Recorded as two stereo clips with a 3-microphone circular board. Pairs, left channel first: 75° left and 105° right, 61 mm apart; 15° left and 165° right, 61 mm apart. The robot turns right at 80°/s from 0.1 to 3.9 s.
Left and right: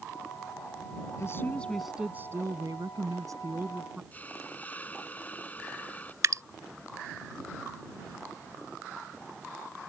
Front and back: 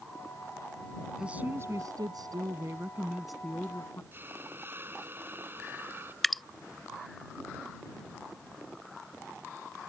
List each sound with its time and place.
1.2 s a woman speaking: 115° left; by 4.0 s 30° right
4.1 s a hiss: 140° left
6.2 s dripping: 70° right